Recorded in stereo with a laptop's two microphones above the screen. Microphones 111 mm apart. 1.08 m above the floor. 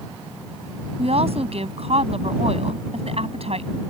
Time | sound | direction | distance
1.0 | a woman speaking | 65° right (ahead or behind) | ?